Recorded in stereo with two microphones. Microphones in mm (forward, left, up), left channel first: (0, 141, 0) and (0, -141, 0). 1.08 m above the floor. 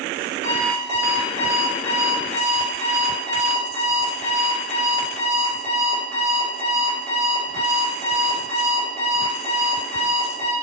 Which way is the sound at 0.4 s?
65° left (ahead or behind).